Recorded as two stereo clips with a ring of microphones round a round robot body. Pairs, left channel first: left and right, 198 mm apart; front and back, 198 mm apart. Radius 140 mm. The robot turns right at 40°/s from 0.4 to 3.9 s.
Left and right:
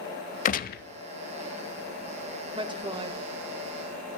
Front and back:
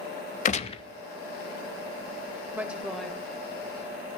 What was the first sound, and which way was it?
A gunshot, 45° left.